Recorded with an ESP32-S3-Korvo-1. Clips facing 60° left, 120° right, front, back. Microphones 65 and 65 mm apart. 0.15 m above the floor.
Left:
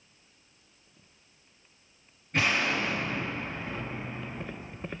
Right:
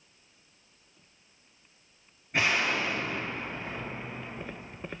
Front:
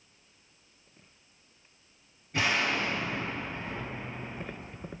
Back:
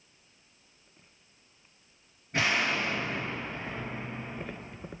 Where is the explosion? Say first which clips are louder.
Even, even; 160° left, 3 m.